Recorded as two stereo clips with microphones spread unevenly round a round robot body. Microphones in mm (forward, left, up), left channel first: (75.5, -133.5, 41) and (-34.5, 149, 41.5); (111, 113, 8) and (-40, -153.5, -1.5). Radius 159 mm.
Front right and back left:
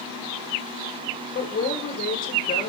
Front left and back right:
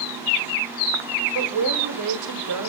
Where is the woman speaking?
130° right, 1.9 m.